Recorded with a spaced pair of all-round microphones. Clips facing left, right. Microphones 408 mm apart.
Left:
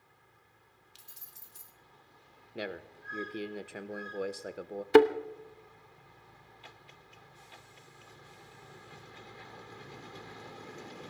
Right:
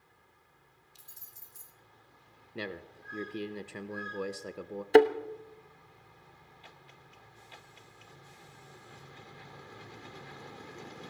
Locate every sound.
0.9 s keys jangling: 75° left (ahead or behind), 1.5 m
2.5 s a man speaking: 10° right (ahead or behind), 1.0 m
4.9 s a thud: 15° left (ahead or behind), 0.7 m